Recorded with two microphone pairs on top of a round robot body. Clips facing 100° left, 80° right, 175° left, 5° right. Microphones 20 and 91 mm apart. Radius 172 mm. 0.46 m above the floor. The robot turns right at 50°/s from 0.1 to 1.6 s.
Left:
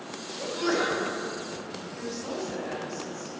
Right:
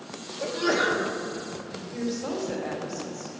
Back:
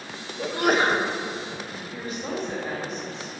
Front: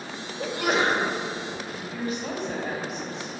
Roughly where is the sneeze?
Behind.